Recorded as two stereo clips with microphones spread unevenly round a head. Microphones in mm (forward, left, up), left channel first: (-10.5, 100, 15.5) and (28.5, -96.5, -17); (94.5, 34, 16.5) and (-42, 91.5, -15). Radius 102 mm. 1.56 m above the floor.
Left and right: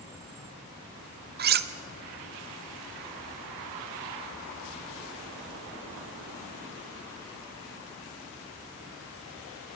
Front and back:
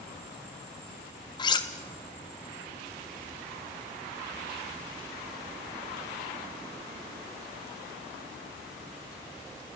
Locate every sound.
1.4 s cutlery clinking: 50° right, 1.1 m